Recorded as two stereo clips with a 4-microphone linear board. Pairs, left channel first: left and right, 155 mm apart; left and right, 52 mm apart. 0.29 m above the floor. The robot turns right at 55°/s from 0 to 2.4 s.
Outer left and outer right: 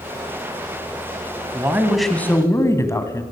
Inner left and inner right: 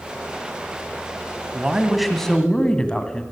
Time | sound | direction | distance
1.5 | a woman speaking | 25° right | 1.9 m